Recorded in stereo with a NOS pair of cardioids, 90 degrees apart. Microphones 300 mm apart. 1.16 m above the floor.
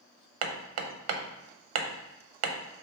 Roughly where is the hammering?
Ahead right.